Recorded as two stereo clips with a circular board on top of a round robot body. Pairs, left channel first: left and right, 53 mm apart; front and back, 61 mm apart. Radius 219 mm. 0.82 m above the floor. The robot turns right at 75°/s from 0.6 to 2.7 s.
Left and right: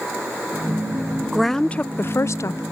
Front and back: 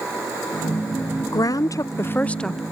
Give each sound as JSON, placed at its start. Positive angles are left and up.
{"t": 1.3, "sound": "a woman speaking", "azimuth_deg": -5}